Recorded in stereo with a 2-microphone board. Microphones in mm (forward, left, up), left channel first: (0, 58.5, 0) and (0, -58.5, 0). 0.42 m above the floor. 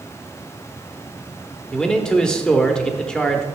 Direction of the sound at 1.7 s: 5° left (ahead or behind).